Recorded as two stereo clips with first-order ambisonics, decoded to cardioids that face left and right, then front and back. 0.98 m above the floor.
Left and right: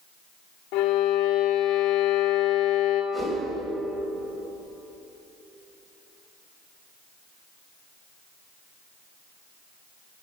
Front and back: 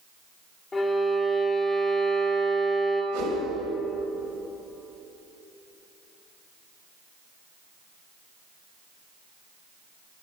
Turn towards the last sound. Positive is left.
turn(degrees=-165)